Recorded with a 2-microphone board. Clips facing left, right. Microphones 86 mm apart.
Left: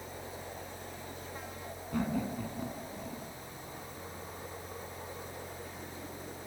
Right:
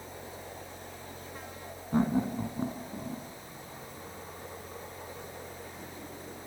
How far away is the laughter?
About 1.5 m.